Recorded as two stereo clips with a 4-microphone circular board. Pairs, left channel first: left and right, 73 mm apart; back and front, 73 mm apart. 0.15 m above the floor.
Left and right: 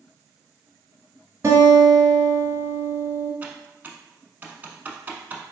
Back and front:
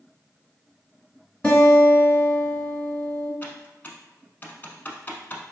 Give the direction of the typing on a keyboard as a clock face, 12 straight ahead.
5 o'clock.